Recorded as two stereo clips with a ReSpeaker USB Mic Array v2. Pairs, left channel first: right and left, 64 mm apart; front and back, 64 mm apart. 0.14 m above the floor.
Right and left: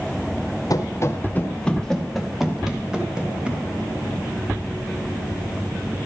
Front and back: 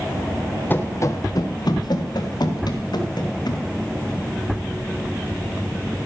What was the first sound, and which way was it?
Running footsteps, 60° right.